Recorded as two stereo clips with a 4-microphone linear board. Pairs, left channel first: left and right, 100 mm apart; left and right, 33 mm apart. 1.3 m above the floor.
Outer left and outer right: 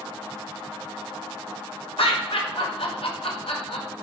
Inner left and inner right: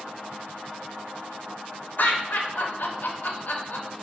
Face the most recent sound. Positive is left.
turn(degrees=70)  # may be behind; listen again after turning